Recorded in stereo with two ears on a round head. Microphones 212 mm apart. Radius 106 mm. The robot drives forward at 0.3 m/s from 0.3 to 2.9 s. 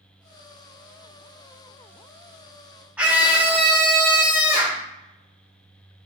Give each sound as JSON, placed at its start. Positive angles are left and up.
{"t": 3.0, "sound": "a scream", "side_deg": -5, "distance_m": 1.1}